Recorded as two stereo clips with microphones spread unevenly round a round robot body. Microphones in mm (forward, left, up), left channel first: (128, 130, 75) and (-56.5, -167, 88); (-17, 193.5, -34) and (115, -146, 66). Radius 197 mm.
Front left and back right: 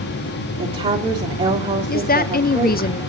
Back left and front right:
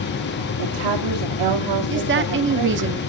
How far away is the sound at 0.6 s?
About 1.9 m.